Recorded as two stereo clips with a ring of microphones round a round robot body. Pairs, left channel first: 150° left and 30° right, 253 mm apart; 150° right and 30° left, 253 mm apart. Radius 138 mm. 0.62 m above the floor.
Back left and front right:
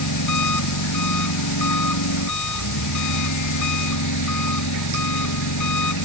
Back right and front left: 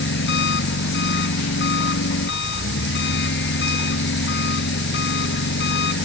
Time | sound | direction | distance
0.0 | an engine running | 160° left | ?